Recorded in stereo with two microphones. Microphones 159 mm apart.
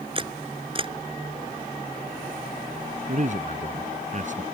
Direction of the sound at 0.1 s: 35° right (ahead or behind).